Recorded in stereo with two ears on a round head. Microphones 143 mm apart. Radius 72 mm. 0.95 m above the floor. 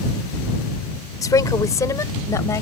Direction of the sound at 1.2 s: 20° left (ahead or behind).